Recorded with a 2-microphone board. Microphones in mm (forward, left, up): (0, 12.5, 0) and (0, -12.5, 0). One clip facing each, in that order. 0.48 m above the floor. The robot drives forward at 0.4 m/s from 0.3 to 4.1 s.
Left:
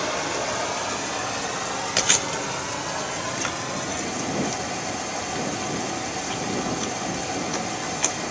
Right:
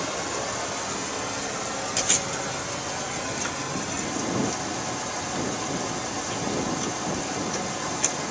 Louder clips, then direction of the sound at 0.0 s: Left 3 dB; 25° left (ahead or behind).